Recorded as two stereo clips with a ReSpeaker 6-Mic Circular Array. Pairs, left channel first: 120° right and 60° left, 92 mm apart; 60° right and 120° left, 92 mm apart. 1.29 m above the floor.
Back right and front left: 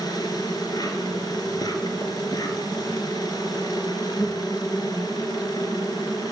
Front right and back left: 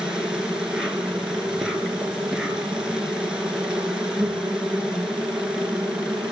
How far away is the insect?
About 3 m.